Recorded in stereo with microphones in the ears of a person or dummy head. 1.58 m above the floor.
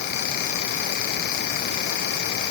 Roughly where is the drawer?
No drawer in this recording.